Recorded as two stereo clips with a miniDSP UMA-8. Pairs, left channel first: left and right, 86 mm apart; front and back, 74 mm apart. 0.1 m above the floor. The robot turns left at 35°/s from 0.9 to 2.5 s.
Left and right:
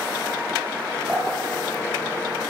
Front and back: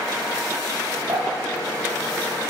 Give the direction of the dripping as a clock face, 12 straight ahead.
6 o'clock.